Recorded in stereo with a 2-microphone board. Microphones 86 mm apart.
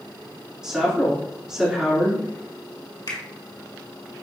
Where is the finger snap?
55° left (ahead or behind), 2.0 m.